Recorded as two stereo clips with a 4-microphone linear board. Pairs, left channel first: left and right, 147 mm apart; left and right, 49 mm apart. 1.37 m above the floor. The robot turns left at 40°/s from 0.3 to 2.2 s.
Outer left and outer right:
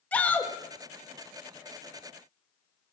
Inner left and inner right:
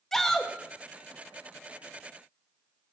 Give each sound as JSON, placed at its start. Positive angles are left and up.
{"t": 0.1, "sound": "a shout", "side_deg": 10, "distance_m": 1.7}